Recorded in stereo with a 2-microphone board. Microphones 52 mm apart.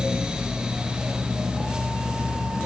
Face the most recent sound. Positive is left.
No sound to turn to.